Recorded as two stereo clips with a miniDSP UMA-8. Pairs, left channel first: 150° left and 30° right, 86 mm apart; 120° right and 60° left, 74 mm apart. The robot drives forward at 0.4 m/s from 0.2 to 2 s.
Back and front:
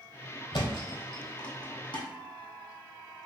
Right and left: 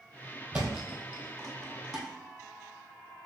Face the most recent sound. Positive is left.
turn(degrees=150)